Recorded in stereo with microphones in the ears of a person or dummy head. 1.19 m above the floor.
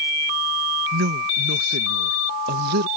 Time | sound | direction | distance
0.9 | a woman speaking | 55° right (ahead or behind) | ?